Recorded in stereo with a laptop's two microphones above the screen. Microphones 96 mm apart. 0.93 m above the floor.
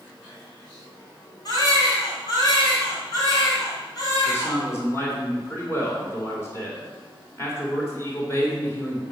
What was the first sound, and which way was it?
A baby crying, 45° left (ahead or behind).